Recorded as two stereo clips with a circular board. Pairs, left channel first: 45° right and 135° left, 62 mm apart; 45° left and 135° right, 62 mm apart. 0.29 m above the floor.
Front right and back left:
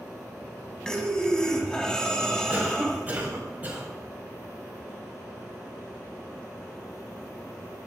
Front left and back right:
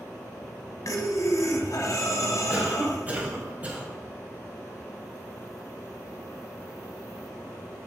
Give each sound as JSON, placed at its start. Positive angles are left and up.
{"t": 0.8, "sound": "breathing", "azimuth_deg": 35, "distance_m": 0.9}
{"t": 2.5, "sound": "a cough", "azimuth_deg": 180, "distance_m": 1.9}